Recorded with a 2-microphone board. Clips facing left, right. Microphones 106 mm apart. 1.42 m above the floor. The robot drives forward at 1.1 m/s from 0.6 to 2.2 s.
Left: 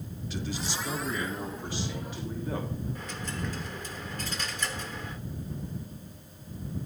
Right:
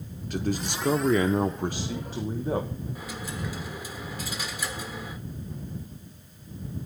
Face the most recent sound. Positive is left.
turn(degrees=-10)  # may be behind; listen again after turning